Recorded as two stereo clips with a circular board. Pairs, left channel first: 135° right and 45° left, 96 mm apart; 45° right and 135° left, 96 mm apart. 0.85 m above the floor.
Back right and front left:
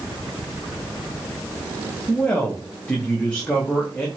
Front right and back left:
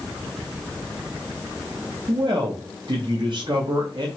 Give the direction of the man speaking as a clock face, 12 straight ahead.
7 o'clock.